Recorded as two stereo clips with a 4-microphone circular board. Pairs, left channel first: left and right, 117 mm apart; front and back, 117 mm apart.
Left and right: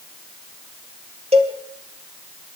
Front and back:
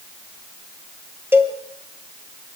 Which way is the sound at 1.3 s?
110° right.